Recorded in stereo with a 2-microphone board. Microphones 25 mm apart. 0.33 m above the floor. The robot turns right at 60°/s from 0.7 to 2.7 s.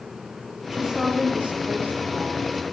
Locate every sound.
0.7 s a woman speaking: 160° right, 8.5 m; by 2.6 s 50° right, 8.5 m